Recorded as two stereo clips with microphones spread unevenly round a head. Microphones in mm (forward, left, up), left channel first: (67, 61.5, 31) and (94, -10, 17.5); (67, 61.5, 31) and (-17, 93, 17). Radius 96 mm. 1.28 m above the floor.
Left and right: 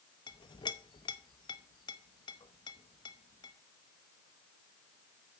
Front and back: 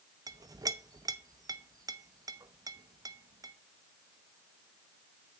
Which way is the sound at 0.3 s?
110° left.